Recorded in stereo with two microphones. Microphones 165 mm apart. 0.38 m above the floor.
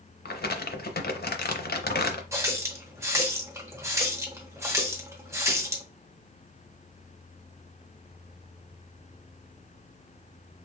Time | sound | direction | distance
0.2 | crumpling | 75° left (ahead or behind) | 0.6 m
2.3 | a running tap | 15° right (ahead or behind) | 0.8 m